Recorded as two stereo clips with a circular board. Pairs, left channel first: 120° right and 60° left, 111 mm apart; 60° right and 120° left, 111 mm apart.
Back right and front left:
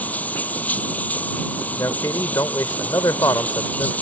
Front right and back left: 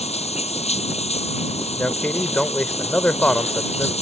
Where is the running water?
45° right.